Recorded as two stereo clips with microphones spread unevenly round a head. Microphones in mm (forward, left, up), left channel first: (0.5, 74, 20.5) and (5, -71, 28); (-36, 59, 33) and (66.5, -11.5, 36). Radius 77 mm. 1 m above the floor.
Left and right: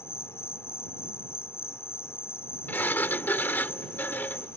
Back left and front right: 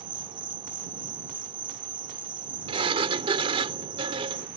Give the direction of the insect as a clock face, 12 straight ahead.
11 o'clock.